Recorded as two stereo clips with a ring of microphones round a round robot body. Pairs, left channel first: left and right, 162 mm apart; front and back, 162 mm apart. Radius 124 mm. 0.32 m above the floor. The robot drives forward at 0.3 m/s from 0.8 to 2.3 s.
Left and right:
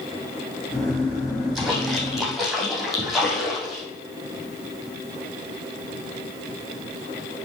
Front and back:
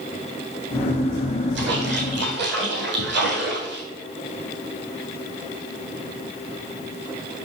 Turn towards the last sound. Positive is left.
turn(degrees=180)